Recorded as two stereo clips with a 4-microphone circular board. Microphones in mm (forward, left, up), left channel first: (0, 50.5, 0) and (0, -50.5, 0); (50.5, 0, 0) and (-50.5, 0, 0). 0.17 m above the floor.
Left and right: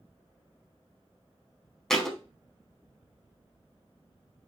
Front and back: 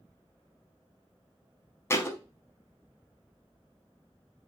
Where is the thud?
10° left, 0.5 m.